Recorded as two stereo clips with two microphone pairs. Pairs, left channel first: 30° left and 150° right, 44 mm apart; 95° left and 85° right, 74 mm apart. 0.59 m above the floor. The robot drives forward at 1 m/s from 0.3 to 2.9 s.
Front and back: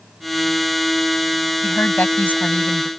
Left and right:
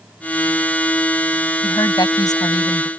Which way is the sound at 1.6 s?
65° left.